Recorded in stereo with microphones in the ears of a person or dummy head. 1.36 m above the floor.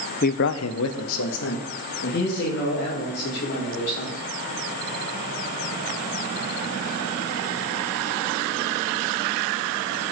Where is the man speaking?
40° left (ahead or behind), 0.6 m; by 4.2 s 50° left (ahead or behind), 4 m.